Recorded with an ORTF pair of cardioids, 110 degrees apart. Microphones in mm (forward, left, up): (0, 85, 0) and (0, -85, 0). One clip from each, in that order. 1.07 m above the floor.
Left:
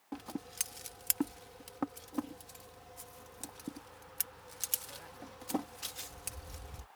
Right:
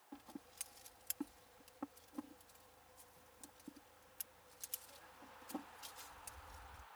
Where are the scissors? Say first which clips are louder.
Left 13 dB; 70° left.